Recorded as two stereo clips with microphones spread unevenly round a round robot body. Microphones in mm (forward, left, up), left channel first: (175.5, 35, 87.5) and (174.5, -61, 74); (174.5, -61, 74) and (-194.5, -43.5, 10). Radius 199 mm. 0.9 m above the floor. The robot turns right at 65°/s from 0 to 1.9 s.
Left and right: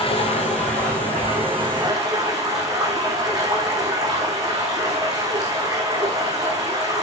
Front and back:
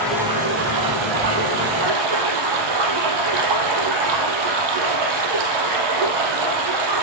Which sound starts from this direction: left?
Running water, at 0.0 s.